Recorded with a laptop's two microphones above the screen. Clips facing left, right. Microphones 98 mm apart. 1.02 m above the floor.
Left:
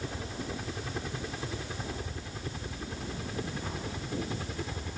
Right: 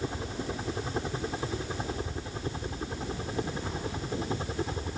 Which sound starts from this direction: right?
A helicopter, at 0.0 s.